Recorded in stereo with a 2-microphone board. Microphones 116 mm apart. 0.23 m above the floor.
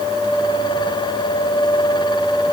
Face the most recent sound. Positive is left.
No sound to turn to.